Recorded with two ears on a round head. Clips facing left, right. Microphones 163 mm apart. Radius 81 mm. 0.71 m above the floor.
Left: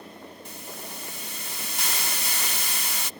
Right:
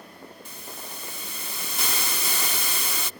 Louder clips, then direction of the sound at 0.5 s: Left 2 dB; 70° right (ahead or behind).